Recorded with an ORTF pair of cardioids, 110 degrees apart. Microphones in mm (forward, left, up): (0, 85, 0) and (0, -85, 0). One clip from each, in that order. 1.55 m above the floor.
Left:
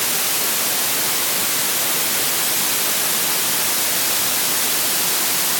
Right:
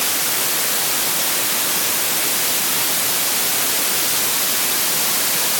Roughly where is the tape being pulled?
I don't hear tape being pulled.